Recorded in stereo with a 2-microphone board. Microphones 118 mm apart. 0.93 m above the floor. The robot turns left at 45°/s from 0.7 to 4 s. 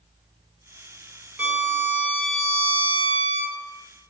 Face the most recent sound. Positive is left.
turn(degrees=75)